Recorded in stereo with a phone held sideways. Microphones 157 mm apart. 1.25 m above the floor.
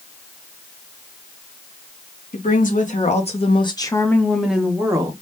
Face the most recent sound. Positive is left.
turn(degrees=-25)  # may be behind; listen again after turning